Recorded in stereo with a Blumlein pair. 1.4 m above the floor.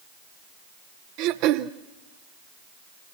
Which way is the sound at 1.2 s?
40° right.